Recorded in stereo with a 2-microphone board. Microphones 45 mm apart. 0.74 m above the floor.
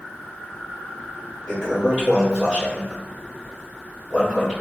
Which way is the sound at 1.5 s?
25° left (ahead or behind).